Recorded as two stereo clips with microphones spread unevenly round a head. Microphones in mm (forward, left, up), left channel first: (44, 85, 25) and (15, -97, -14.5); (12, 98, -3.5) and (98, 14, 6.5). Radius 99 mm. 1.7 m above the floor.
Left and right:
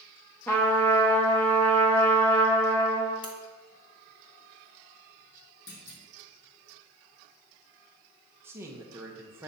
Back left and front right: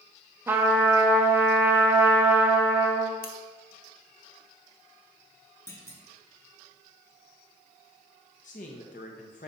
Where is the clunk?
70° left, 1.9 m.